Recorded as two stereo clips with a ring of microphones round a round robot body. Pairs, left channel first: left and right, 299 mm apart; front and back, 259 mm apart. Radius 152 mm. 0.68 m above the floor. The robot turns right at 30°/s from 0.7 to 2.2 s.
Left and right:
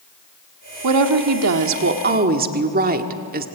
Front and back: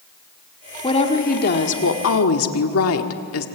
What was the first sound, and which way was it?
A woman speaking, 70° right.